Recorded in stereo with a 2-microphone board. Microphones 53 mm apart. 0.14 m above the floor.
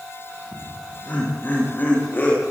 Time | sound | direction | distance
0.5 | laughter | 30° left (ahead or behind) | 9.5 m